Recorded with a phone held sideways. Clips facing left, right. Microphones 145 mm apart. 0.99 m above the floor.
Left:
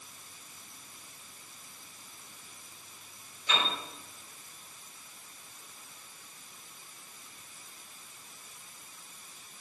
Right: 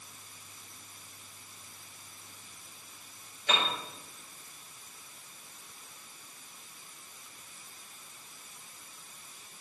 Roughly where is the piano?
Right.